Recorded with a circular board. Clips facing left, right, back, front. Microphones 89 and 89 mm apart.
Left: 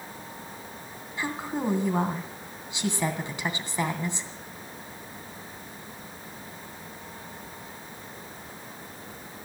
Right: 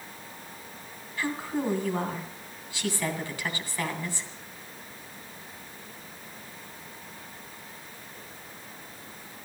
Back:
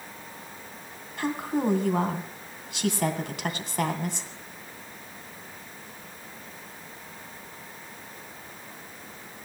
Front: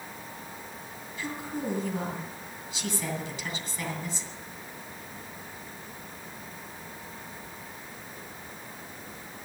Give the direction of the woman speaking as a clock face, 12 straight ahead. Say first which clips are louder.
Right 1 dB, back 7 dB; 7 o'clock.